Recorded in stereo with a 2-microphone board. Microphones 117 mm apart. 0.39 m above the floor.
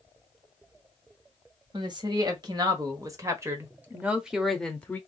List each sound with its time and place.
1.7 s a woman speaking: 40° right (ahead or behind), 1.8 m; by 5.0 s 15° left (ahead or behind), 0.9 m